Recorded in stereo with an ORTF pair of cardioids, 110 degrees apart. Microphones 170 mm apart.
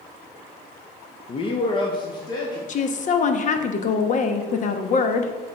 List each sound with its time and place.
1.3 s a man speaking: 30° left, 0.7 m; by 2.6 s 25° left, 1.9 m
2.7 s a woman speaking: 45° left, 1.0 m